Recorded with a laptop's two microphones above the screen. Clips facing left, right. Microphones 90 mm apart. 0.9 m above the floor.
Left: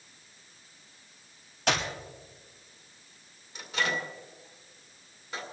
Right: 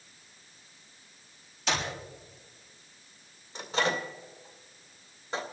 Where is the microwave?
35° right (ahead or behind), 2.5 m.